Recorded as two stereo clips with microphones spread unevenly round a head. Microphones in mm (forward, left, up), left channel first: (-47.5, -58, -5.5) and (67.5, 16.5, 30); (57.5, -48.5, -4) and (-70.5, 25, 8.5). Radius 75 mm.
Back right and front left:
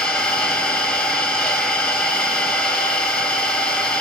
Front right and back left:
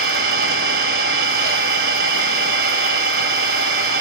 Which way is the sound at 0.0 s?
125° left.